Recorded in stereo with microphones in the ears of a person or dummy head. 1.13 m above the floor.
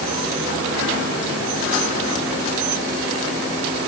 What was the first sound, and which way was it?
Only background noise.